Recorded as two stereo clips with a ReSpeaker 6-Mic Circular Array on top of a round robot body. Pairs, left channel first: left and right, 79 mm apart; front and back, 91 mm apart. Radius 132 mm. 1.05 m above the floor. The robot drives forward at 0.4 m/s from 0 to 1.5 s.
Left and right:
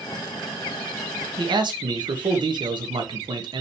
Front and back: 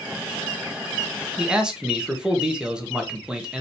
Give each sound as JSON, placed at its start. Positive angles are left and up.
{"t": 1.4, "sound": "a man speaking", "azimuth_deg": -100, "distance_m": 1.7}